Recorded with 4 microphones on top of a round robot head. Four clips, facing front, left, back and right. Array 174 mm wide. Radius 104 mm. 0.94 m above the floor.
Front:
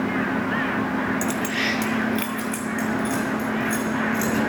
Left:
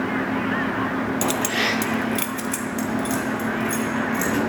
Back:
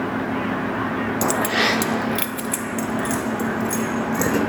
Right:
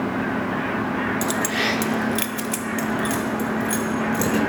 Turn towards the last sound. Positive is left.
turn(degrees=-160)